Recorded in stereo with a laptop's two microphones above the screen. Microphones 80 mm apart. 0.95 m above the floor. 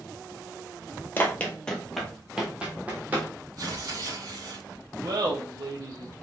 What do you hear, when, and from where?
1.2 s running footsteps: 25° left (ahead or behind), 1.0 m; by 3.3 s 25° right (ahead or behind), 1.8 m
3.6 s tearing paper: 55° right (ahead or behind), 1.8 m
5.0 s laughter: 60° right (ahead or behind), 0.9 m